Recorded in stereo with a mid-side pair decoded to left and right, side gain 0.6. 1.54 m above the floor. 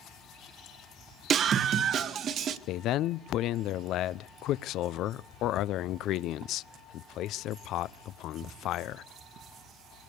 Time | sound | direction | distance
1.3 | a scream | 50° right | 1.3 m
2.7 | a man speaking | 60° left | 0.6 m